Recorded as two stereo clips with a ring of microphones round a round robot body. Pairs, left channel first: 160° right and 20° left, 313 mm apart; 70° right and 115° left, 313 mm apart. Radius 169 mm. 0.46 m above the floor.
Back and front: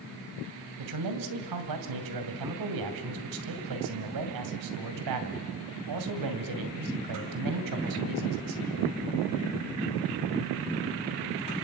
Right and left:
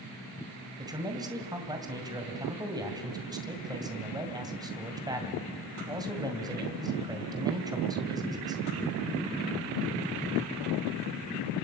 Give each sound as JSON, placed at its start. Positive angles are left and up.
{"t": 0.8, "sound": "a man speaking", "azimuth_deg": 35, "distance_m": 2.5}